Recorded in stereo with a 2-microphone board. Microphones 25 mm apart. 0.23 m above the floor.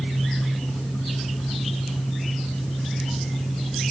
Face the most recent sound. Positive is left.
No sound to turn to.